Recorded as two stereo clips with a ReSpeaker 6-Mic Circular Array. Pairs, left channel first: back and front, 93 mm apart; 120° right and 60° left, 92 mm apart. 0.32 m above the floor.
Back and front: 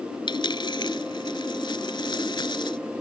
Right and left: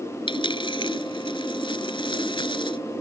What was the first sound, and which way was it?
A dropped coin, 150° right.